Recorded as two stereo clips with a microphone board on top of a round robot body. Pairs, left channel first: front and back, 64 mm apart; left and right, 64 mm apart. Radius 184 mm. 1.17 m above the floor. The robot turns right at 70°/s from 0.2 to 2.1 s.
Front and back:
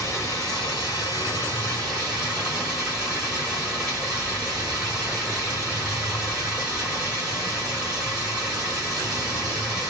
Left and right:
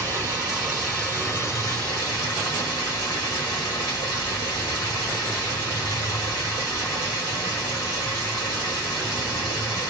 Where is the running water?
50° right, 1.0 m; by 9.9 s 85° left, 1.0 m.